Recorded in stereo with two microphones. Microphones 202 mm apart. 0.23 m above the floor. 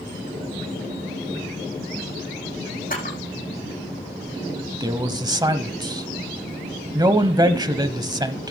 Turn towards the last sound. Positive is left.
turn(degrees=-20)  # may be behind; listen again after turning